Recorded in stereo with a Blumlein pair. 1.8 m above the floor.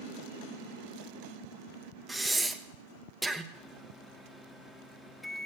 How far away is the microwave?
About 1.3 m.